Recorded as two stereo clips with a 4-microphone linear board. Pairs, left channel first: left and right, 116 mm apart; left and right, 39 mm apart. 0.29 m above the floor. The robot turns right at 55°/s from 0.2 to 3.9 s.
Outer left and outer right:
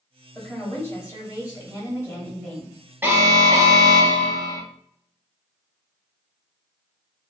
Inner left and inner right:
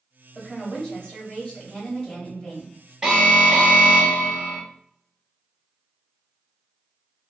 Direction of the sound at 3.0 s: 150° right.